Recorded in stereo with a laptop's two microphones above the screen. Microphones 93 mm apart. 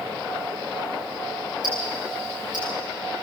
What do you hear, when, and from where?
1.6 s ticking: 50° right (ahead or behind), 10 m